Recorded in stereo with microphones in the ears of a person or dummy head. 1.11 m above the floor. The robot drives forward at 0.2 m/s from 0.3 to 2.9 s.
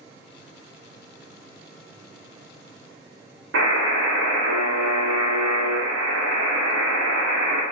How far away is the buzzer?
About 0.8 m.